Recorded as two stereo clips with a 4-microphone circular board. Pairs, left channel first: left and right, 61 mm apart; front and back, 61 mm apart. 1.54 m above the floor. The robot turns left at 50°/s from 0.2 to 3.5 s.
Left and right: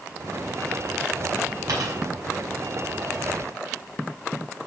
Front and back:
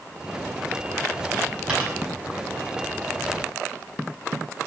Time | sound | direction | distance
1.7 | a dropped coin | 105° right | 6 m